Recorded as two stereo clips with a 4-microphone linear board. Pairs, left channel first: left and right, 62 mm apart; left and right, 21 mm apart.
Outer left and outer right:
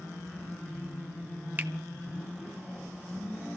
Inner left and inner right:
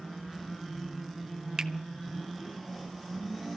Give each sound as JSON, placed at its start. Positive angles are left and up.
{"t": 1.6, "sound": "a finger snap", "side_deg": -35, "distance_m": 0.9}